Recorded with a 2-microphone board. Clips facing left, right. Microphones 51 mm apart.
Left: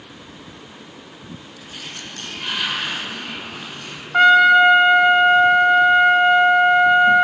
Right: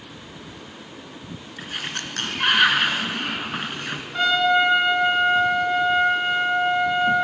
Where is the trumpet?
55° left (ahead or behind), 1.1 m.